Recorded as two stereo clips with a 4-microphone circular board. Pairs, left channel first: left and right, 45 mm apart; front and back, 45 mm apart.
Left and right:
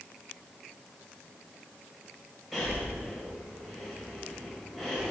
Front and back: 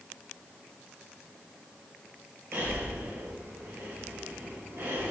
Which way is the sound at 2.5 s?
175° left.